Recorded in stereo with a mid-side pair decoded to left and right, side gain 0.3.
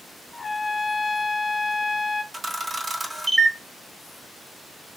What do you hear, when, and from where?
0.3 s a trumpet: 35° left, 0.5 m
2.3 s a camera shutter: 35° right, 1.0 m